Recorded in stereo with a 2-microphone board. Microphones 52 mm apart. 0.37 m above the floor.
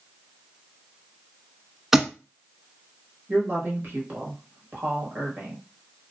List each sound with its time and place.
1.9 s a thud: 5° right (ahead or behind), 0.5 m
3.3 s a woman speaking: 40° right (ahead or behind), 1.3 m